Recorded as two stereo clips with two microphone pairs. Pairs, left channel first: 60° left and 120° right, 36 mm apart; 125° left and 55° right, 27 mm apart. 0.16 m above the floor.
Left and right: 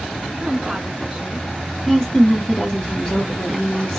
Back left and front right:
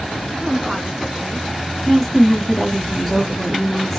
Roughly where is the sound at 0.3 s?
Right.